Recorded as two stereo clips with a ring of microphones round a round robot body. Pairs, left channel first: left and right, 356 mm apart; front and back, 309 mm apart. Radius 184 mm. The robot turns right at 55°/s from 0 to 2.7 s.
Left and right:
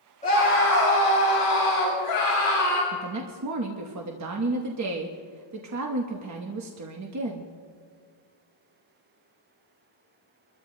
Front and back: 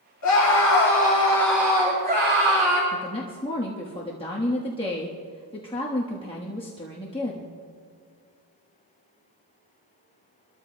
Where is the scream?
20° left, 5.5 m; by 2.8 s 155° left, 5.5 m.